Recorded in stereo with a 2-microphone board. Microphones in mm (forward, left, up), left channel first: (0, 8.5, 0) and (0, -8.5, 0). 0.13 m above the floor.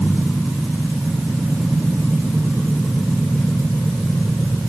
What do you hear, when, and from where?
Only background noise.